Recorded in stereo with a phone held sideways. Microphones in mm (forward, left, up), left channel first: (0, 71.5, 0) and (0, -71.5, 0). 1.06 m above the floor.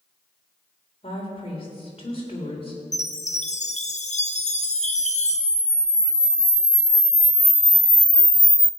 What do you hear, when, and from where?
1.0 s a woman speaking: 40° left (ahead or behind), 3.5 m
2.9 s a chime: 50° left (ahead or behind), 0.8 m
4.4 s a camera shutter: 20° right (ahead or behind), 1.1 m